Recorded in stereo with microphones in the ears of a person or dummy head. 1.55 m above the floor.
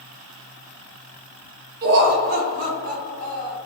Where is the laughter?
55° right (ahead or behind), 0.7 m; by 3.6 s 45° right (ahead or behind), 1.7 m.